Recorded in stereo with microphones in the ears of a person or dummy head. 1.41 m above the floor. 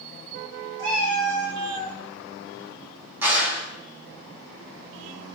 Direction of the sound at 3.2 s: 15° right (ahead or behind).